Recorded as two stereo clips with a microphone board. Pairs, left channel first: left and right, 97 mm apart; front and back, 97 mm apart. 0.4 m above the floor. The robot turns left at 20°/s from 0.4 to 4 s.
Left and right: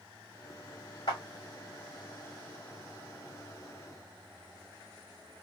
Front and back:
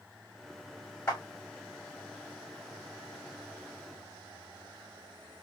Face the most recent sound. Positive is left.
turn(degrees=0)